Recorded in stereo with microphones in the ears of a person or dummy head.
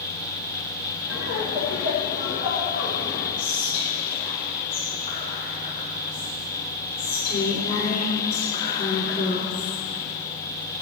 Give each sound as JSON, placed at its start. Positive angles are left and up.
{"t": 1.1, "sound": "laughter", "side_deg": 80, "distance_m": 5.0}
{"t": 3.4, "sound": "whispering", "side_deg": 45, "distance_m": 4.0}